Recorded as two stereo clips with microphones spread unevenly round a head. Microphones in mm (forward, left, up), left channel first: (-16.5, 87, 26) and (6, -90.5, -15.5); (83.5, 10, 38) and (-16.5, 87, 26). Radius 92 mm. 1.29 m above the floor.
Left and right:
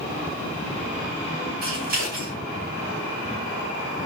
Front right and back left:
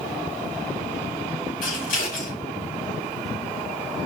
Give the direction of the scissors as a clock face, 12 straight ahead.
1 o'clock.